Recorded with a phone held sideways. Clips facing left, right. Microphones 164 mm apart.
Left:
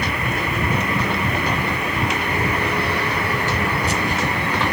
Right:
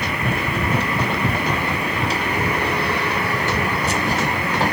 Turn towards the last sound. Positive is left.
turn(degrees=-40)  # may be behind; listen again after turning